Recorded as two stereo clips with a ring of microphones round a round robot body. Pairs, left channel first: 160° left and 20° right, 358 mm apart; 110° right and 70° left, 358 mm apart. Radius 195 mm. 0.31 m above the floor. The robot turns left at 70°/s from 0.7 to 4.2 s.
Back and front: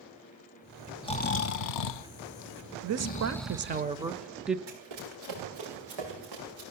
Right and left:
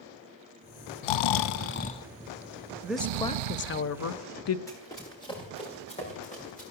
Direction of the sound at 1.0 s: 125° right.